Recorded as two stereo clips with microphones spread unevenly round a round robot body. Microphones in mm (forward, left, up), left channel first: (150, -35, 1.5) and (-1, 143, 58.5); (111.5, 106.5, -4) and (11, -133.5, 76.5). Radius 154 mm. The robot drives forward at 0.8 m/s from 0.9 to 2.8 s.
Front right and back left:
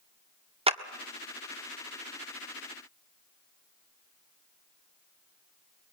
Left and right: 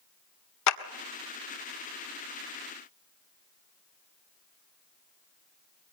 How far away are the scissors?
No scissors in this recording.